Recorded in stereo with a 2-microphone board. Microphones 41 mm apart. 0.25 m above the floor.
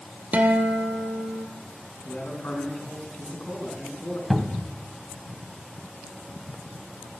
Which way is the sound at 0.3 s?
40° right (ahead or behind).